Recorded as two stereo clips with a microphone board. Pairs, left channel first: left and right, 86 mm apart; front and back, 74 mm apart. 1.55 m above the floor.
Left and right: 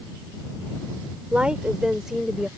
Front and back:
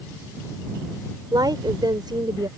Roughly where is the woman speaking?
Behind.